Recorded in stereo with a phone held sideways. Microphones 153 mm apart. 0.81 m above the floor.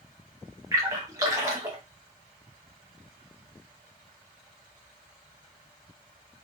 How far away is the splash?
About 0.9 m.